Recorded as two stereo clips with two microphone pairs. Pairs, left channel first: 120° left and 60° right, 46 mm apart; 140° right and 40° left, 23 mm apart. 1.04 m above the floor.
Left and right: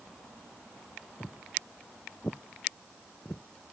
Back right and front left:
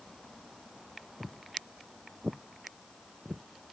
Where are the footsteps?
105° left; by 3.5 s 85° left.